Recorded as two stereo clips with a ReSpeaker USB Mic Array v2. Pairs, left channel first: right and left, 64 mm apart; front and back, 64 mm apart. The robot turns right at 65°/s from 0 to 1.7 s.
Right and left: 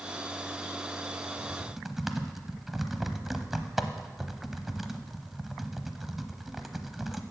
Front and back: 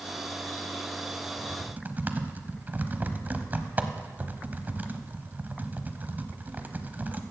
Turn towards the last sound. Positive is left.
turn(degrees=175)